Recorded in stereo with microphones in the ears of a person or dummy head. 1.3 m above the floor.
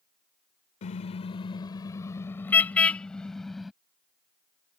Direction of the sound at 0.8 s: 40° left (ahead or behind).